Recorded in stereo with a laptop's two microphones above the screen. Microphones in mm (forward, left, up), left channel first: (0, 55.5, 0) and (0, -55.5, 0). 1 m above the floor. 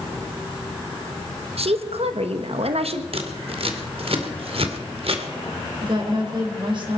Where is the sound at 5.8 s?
50° right (ahead or behind), 3.5 m.